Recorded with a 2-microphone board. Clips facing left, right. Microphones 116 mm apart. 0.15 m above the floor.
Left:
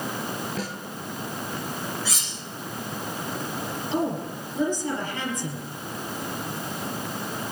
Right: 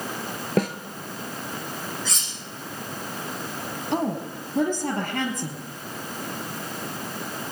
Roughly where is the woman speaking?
Right.